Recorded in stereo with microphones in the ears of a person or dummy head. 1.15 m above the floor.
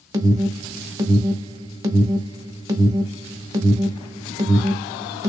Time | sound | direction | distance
0.1 | an alarm | 20° right (ahead or behind) | 0.7 m